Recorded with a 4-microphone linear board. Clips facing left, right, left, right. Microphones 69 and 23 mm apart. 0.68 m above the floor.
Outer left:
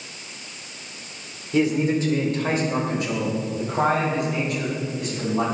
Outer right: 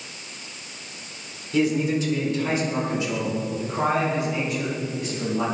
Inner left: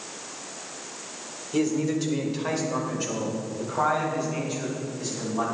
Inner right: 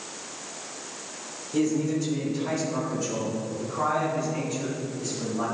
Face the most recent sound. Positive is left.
turn(degrees=70)  # may be behind; listen again after turning